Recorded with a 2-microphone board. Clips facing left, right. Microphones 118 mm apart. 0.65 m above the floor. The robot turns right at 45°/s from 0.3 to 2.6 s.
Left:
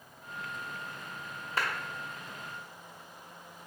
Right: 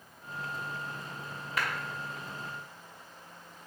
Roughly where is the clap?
Left.